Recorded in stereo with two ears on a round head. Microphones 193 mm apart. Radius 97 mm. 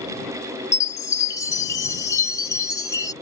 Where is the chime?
15° left (ahead or behind).